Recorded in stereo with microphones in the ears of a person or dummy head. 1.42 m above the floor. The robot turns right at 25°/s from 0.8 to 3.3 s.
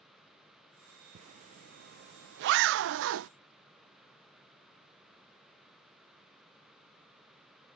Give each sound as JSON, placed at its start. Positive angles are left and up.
{"t": 1.1, "sound": "a zipper", "side_deg": -40}